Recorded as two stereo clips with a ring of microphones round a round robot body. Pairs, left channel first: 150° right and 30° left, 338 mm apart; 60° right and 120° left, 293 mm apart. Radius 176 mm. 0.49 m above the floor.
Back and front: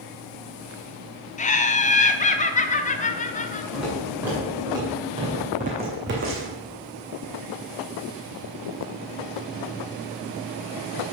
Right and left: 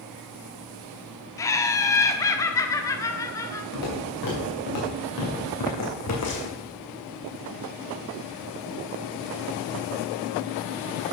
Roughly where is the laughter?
Behind right.